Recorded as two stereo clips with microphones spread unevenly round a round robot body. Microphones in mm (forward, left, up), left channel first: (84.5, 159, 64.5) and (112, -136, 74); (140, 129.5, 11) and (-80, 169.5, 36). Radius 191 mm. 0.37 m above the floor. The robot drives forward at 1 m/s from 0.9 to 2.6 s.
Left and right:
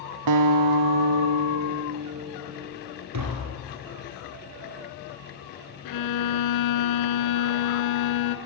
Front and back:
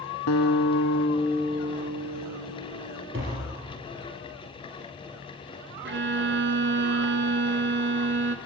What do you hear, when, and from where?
0.3 s a guitar: 60° right, 0.6 m; by 3.0 s 160° right, 1.5 m
3.1 s tapping: 130° right, 3.5 m
5.8 s a violin: 130° left, 1.3 m